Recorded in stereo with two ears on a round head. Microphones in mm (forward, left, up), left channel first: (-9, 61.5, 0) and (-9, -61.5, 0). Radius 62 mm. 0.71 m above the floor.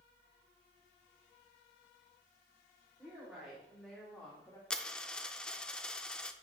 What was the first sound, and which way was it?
A woman speaking, 15° right (ahead or behind).